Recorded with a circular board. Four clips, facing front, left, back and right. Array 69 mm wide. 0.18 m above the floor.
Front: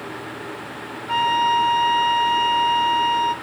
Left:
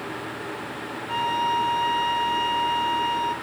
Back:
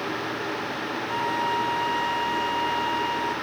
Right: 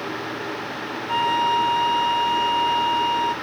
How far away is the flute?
About 0.5 m.